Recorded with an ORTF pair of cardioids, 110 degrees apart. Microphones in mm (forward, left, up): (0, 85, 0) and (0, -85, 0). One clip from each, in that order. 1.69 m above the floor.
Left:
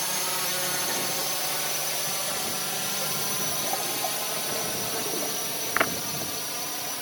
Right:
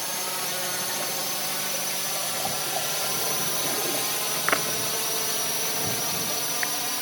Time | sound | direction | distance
0.0 | a drone | 10° left | ?